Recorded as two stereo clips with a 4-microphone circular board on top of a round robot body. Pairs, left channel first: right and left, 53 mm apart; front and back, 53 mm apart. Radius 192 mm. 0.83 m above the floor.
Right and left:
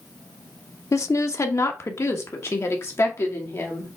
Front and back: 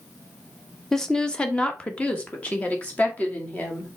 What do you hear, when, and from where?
0.9 s a woman speaking: 80° right, 1.0 m; by 3.9 s 55° right, 3 m